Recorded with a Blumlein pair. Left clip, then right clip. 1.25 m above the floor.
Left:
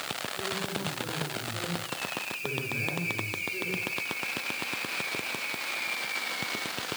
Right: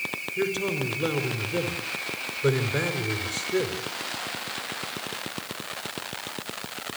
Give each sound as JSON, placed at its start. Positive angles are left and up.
{"t": 0.4, "sound": "a man speaking", "azimuth_deg": -35, "distance_m": 4.5}